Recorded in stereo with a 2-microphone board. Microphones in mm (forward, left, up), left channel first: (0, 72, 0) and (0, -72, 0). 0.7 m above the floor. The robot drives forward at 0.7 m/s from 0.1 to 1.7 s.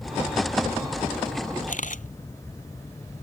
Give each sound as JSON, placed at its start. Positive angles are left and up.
{"t": 1.7, "sound": "a camera shutter", "side_deg": 65}